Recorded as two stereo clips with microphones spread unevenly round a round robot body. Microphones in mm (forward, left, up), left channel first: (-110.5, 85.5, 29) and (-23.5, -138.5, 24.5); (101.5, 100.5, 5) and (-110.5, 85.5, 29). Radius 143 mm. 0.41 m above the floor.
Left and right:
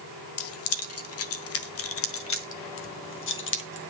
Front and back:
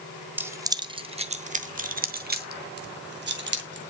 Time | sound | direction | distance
0.4 | keys jangling | 100° left | 1.2 m